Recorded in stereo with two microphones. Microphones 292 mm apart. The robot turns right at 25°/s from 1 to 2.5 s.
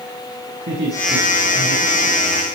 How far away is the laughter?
About 5 m.